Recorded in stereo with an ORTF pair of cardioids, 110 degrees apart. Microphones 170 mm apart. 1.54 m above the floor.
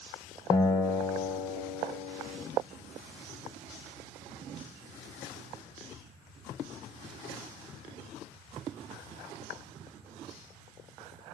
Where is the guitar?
25° left, 2 m.